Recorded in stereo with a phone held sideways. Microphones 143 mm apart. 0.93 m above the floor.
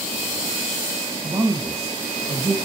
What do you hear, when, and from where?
1.2 s a woman speaking: 45° right (ahead or behind), 1.4 m